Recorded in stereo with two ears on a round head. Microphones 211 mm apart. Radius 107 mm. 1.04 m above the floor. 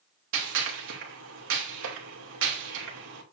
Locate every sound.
0.3 s a gunshot: 55° right (ahead or behind), 2.5 m